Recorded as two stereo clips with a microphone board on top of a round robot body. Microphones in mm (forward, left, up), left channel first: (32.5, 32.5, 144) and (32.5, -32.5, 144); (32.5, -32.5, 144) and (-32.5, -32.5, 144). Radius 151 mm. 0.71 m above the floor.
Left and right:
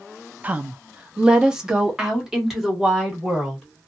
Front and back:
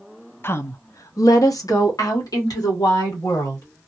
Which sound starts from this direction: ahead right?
A woman speaking, at 0.4 s.